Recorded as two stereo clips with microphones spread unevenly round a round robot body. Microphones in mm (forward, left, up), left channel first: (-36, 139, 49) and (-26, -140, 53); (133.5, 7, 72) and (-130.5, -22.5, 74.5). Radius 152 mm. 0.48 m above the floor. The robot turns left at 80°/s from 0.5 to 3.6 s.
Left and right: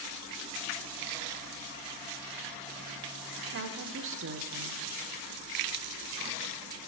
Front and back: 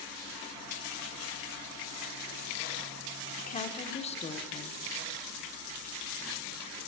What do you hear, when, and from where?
3.4 s a woman speaking: 35° right, 1.0 m; by 4.8 s 55° right, 1.0 m